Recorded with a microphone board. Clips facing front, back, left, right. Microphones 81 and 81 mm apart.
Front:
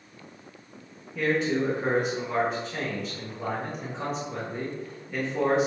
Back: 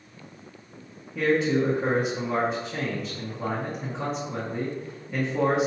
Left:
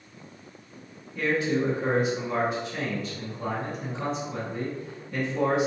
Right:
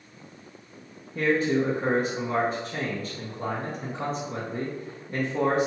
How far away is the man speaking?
About 0.9 m.